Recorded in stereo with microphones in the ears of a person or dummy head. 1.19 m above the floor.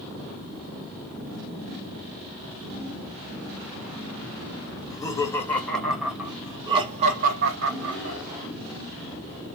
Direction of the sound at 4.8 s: 20° left (ahead or behind).